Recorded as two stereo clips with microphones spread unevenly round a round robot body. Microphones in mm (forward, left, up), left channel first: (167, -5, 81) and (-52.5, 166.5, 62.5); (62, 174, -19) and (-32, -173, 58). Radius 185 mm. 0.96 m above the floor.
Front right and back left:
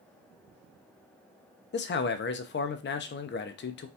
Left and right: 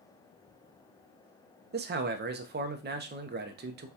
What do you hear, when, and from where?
1.7 s a man speaking: 45° right, 0.6 m